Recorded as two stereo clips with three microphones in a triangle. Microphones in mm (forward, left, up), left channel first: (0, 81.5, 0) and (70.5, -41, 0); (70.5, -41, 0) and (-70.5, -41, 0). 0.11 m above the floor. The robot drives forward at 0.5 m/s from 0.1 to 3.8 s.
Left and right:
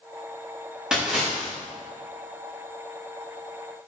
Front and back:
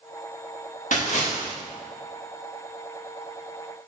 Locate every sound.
0.9 s a splash: 25° left, 6.5 m